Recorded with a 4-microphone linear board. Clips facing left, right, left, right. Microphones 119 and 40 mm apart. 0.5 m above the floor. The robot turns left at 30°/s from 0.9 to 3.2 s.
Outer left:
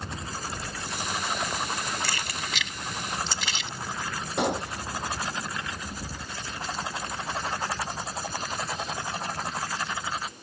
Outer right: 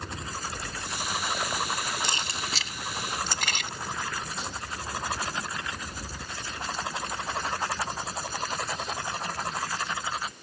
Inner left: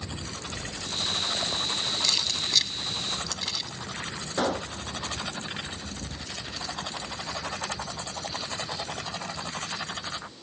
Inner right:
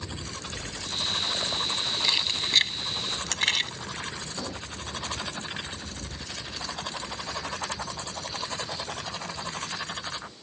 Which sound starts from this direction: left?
A gunshot, at 4.4 s.